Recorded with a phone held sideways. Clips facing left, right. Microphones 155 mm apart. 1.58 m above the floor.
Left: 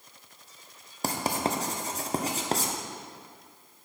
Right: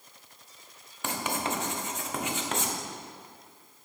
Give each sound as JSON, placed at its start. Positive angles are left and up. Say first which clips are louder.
{"t": 1.0, "sound": "writing", "louder": "left 3 dB", "side_deg": 35, "distance_m": 0.7}